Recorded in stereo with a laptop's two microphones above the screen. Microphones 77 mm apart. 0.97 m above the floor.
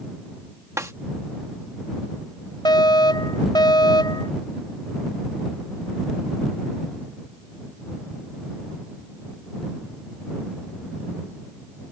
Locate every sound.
0.8 s a snare drum: 40° right (ahead or behind)
2.6 s a fire alarm: 65° left (ahead or behind)